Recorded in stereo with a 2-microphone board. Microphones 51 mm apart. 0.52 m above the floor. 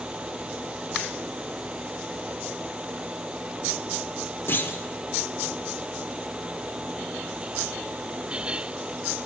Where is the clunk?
45° left (ahead or behind), 1.1 m.